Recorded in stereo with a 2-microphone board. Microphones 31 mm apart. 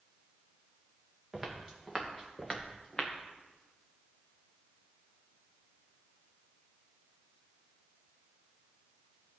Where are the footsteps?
Centre (ahead or behind), 3 m; by 3.1 s 35° left (ahead or behind), 1.9 m.